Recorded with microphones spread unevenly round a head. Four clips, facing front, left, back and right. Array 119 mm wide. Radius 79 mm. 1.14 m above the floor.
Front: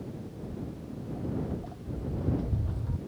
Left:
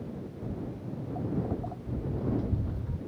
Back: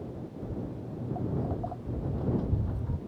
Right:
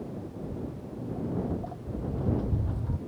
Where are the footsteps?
160° left; by 3.0 s 115° right.